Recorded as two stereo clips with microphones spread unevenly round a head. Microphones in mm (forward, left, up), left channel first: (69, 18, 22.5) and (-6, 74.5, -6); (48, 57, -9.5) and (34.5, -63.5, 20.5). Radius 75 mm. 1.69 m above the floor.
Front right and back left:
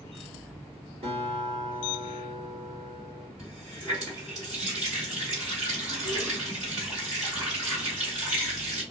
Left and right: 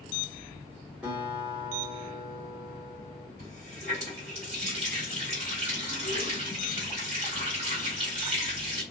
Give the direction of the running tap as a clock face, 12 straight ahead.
4 o'clock.